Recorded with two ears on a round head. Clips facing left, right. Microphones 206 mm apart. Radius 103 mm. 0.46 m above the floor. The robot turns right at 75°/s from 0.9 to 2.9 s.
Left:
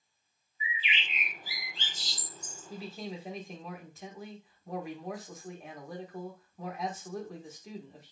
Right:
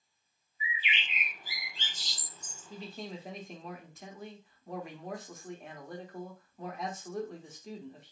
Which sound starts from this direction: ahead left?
A bird, at 0.6 s.